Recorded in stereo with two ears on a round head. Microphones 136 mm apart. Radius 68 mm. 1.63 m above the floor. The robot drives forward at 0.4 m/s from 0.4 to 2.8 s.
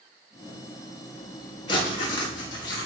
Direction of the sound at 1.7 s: 35° left (ahead or behind).